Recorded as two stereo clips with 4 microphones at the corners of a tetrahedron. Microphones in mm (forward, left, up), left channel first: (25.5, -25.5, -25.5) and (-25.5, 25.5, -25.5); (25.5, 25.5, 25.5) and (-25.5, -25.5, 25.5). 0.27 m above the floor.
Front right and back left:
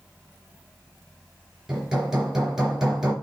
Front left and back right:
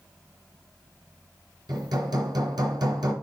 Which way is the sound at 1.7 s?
145° right.